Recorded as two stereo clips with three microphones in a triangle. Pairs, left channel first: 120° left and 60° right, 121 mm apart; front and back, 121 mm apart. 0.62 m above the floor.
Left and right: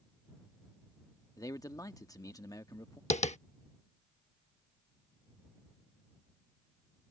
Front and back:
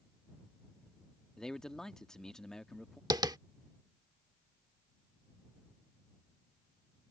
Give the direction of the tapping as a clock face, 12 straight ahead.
8 o'clock.